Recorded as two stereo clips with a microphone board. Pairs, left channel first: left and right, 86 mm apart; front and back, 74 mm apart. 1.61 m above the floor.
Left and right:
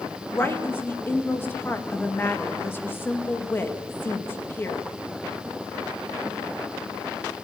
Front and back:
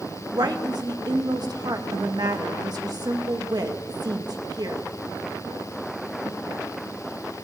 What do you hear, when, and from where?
0.3 s a woman speaking: 155° left, 2.5 m